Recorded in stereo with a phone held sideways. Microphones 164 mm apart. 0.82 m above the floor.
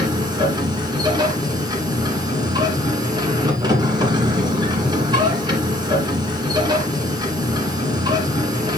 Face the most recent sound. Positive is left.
turn(degrees=-25)  # may be behind; listen again after turning